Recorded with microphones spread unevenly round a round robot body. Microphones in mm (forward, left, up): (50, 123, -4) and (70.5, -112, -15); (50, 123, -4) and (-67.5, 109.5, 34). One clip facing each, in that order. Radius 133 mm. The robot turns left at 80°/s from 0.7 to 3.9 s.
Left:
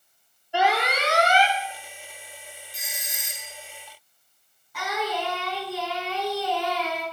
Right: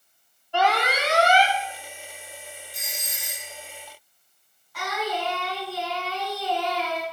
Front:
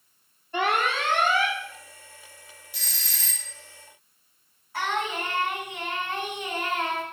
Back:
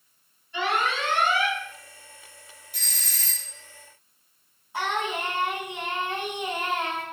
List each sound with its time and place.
0.5 s an alarm: 15° left, 2.5 m; by 1.6 s 55° right, 2.5 m
2.7 s a doorbell: 170° right, 1.1 m; by 3.5 s 125° left, 1.1 m
4.7 s singing: 115° left, 7 m